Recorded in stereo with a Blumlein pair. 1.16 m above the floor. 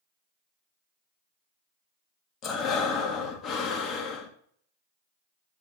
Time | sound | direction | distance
2.4 | breathing | 25° left | 1.1 m